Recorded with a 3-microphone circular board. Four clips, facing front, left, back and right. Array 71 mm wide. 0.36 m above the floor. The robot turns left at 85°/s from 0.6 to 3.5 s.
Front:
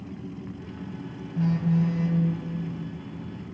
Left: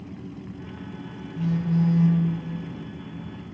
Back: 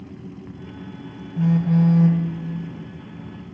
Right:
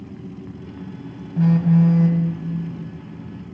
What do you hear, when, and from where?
1.4 s a phone buzzing: 95° right, 0.9 m; by 2.2 s 170° right, 0.9 m